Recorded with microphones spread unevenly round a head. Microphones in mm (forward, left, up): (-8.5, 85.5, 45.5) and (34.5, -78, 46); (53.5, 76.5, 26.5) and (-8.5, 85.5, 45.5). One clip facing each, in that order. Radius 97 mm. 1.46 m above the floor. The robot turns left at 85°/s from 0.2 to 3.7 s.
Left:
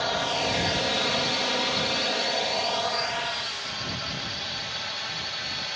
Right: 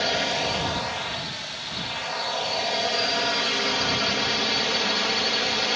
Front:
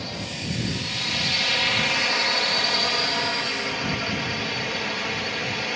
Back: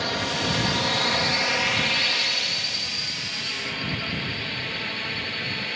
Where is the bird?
No bird in this recording.